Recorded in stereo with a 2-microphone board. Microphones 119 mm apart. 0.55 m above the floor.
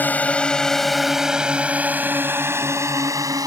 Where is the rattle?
I don't hear a rattle.